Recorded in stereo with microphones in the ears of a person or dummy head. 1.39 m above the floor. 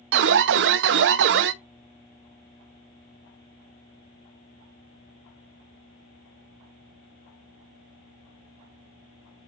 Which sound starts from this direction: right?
An alarm, at 0.1 s.